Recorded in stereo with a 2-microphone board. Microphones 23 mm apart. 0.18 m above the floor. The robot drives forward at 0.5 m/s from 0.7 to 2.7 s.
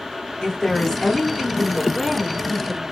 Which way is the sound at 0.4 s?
30° left (ahead or behind).